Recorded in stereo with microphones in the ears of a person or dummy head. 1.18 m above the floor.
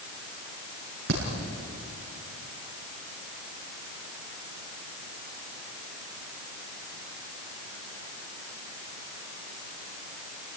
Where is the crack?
55° right (ahead or behind), 7 m.